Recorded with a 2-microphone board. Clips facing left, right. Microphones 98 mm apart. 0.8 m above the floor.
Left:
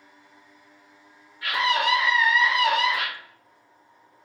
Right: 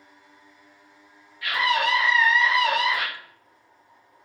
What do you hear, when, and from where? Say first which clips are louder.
1.4 s a scream: even; 35° left (ahead or behind), 1.0 m; by 3.1 s 5° right (ahead or behind), 1.7 m